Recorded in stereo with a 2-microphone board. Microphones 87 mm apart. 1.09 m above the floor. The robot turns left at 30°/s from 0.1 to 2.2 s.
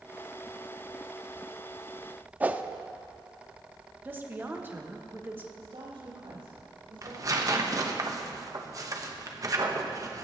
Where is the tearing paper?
40° right (ahead or behind), 1.1 m.